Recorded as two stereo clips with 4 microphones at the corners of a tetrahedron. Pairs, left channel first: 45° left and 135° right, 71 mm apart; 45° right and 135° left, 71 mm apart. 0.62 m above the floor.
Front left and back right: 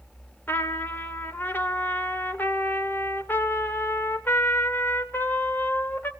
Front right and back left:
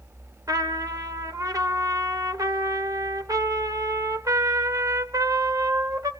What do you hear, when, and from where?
0.5 s a trumpet: 105° left, 1.3 m